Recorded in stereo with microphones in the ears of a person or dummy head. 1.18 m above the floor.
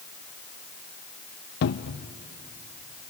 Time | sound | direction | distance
1.6 | a cupboard door | 55° left (ahead or behind) | 0.6 m